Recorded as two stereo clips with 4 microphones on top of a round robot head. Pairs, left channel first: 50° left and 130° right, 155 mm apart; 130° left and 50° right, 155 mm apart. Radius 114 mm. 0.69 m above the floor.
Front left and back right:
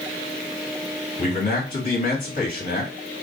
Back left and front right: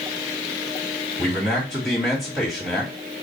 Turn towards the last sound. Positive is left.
turn(degrees=40)